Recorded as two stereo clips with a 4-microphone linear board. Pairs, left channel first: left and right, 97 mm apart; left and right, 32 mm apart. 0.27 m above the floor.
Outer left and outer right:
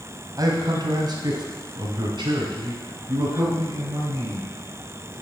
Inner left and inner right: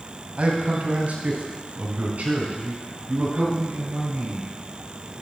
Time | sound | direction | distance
0.4 | a man speaking | 45° right (ahead or behind) | 1.7 m